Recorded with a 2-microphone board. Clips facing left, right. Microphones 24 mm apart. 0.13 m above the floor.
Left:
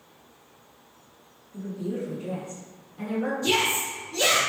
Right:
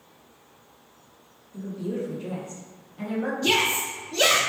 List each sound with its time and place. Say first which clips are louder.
1.5 s a woman speaking: right 1 dB; 15° right (ahead or behind), 1.5 m; by 3.3 s 5° left (ahead or behind), 1.8 m
3.4 s a shout: right 2 dB; 40° right (ahead or behind), 1.7 m